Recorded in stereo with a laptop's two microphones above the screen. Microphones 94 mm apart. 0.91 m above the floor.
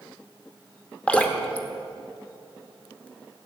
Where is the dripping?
15° left (ahead or behind), 1.1 m.